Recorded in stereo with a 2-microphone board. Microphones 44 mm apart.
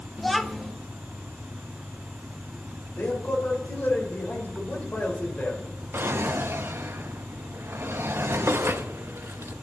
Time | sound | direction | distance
0.2 | a child speaking | centre (ahead or behind) | 0.8 m
3.0 | a man speaking | 45° left (ahead or behind) | 3 m
5.9 | a drawer | 65° right (ahead or behind) | 0.7 m